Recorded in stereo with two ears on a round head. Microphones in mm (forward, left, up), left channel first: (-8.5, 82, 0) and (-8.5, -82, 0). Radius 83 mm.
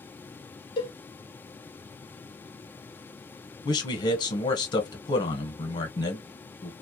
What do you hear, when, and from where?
0.8 s a cowbell: 25° left (ahead or behind), 0.6 m
3.6 s a man speaking: 25° left (ahead or behind), 1.0 m